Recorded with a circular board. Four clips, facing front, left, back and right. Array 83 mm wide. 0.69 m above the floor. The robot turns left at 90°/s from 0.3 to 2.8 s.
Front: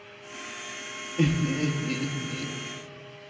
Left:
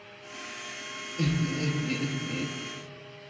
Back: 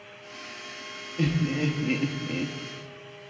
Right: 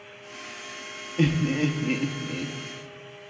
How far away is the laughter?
About 0.7 m.